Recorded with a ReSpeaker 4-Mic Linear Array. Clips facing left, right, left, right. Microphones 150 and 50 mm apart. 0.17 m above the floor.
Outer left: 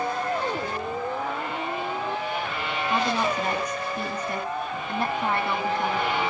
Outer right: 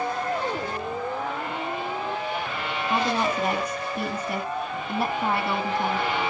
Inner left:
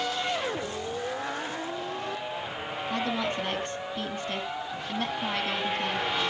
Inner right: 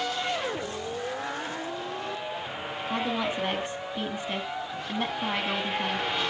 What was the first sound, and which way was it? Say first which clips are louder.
A woman speaking: outer right 1 dB, inner right 1 dB; 10° right (ahead or behind).